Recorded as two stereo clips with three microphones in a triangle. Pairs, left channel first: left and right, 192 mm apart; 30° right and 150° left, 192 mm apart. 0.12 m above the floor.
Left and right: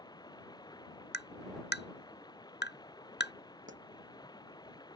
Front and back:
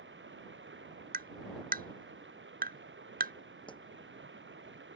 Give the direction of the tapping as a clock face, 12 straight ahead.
8 o'clock.